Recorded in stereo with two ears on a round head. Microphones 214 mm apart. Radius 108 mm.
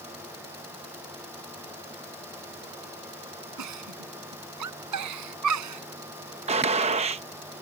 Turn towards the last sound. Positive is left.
turn(degrees=-25)  # may be behind; listen again after turning